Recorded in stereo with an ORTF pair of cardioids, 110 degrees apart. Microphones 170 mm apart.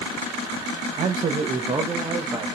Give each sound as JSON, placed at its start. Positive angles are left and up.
{"t": 1.0, "sound": "a man speaking", "azimuth_deg": -45, "distance_m": 0.8}